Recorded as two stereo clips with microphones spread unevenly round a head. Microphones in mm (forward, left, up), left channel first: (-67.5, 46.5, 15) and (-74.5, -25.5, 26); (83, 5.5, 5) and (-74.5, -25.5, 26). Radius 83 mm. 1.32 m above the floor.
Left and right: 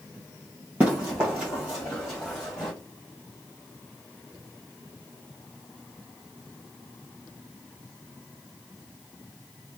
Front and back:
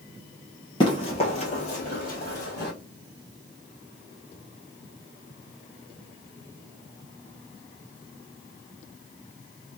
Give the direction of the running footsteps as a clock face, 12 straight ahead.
1 o'clock.